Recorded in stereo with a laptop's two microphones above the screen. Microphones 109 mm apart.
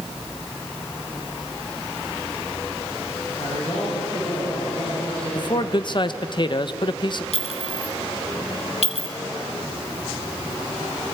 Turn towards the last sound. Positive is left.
turn(degrees=70)  # may be behind; listen again after turning